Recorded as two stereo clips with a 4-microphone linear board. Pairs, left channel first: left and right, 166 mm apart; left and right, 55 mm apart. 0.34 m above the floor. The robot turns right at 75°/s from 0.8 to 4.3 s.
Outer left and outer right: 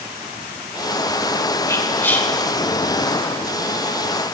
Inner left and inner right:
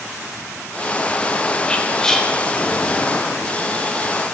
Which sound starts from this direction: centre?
Whispering, at 1.7 s.